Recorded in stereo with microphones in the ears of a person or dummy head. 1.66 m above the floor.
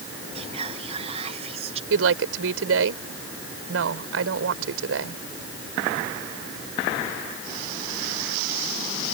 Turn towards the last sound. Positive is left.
turn(degrees=-80)